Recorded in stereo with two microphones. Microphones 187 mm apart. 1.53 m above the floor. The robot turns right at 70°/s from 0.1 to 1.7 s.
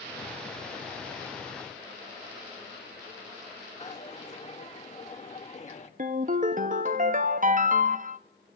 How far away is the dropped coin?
About 1.4 m.